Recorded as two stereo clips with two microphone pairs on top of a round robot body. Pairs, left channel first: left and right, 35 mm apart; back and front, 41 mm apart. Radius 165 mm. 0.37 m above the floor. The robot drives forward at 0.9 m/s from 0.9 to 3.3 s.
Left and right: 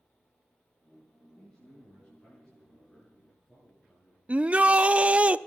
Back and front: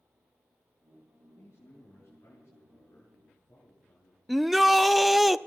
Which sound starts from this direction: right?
A shout, at 4.3 s.